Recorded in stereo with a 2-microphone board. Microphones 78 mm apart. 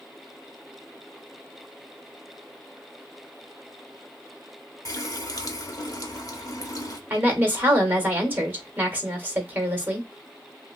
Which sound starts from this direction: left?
A running tap, at 4.8 s.